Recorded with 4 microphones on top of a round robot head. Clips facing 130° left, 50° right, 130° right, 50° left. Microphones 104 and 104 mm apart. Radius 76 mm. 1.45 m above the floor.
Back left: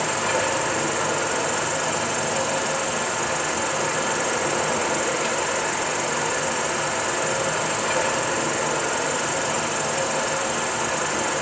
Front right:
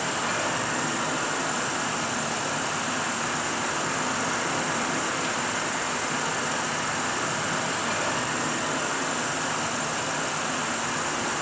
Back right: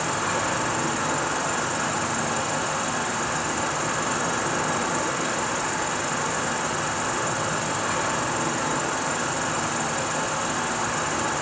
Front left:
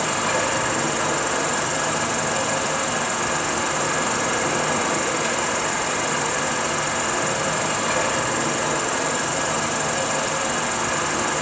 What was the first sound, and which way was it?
An insect, 80° left.